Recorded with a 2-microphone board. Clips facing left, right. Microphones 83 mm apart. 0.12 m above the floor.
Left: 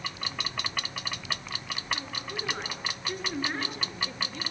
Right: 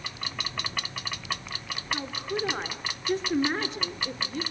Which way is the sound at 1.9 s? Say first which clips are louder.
Right 9 dB; 25° right (ahead or behind).